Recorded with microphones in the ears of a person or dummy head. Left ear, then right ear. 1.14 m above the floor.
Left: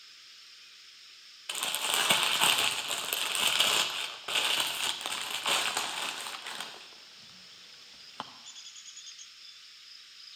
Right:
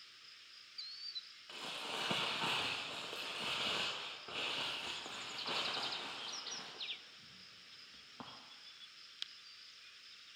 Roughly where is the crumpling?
Left.